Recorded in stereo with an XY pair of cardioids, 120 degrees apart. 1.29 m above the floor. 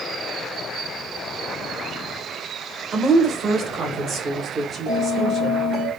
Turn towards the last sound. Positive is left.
turn(degrees=-60)